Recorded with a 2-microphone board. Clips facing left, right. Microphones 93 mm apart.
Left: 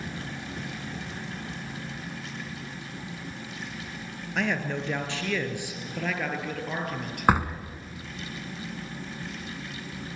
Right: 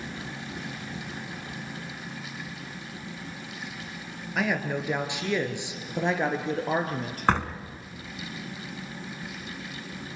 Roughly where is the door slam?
Centre.